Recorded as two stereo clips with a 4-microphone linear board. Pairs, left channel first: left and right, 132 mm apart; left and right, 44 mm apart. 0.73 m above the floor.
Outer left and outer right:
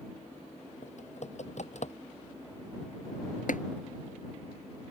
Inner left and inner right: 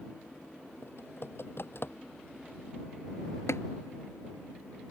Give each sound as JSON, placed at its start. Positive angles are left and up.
{"t": 0.8, "sound": "typing on a keyboard", "side_deg": 60}
{"t": 3.5, "sound": "tapping", "side_deg": 85}